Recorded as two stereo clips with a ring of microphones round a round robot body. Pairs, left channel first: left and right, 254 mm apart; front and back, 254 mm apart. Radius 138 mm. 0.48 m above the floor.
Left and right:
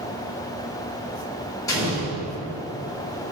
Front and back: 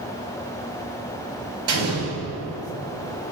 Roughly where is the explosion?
Behind.